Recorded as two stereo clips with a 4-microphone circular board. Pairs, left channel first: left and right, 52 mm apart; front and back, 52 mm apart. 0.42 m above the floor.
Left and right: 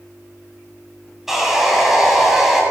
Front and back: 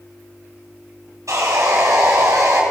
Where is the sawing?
175° right, 2.5 m.